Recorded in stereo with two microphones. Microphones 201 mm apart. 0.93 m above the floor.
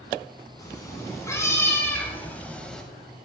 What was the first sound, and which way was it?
A cat meowing, 15° left (ahead or behind).